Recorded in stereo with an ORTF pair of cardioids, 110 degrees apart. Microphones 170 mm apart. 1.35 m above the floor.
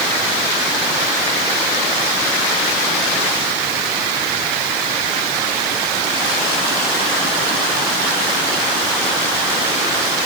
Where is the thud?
No thud in this recording.